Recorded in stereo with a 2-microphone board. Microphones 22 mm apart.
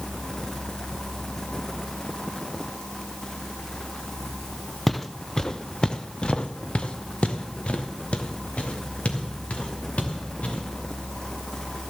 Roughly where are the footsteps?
Centre.